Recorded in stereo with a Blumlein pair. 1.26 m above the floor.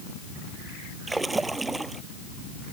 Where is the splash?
10° right.